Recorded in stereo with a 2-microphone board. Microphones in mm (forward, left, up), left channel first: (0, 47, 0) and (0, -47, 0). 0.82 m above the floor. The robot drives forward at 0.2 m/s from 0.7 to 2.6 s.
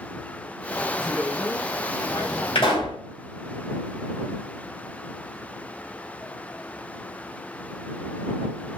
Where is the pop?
80° left, 2.5 m.